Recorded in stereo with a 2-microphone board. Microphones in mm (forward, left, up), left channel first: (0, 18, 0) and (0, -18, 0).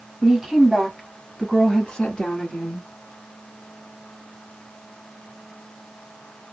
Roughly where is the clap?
No clap in this recording.